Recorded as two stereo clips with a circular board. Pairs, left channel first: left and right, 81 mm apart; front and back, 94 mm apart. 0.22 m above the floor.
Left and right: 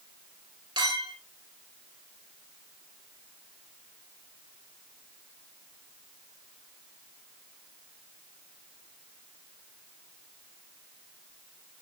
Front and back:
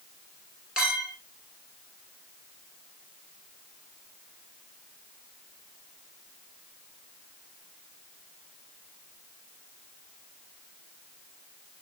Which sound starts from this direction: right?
A clink, at 0.8 s.